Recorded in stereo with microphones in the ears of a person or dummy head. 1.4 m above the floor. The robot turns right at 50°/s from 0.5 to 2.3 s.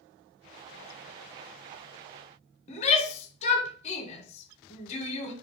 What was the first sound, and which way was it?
A shout, 35° left (ahead or behind).